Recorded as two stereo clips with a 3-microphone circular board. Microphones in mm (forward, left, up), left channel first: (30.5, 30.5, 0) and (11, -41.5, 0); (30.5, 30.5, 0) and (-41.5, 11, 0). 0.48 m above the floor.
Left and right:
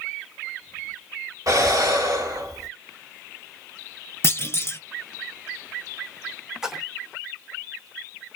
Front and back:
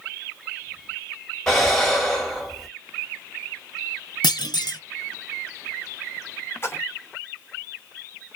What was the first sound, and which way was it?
Breathing, 70° right.